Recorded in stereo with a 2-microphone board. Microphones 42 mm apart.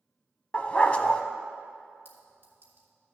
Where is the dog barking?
30° left (ahead or behind), 0.6 m.